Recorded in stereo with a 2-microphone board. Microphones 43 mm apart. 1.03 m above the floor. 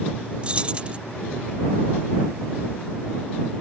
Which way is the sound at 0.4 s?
30° right (ahead or behind).